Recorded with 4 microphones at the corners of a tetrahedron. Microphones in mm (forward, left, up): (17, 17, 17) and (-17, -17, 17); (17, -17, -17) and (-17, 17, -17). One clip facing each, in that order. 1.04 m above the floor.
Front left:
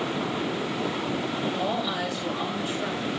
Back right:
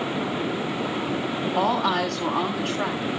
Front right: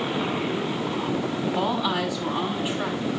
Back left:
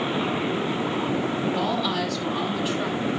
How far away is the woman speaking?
About 8.5 m.